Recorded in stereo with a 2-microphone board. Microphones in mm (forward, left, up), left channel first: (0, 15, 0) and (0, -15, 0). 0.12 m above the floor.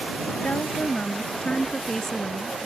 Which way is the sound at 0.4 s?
55° left (ahead or behind).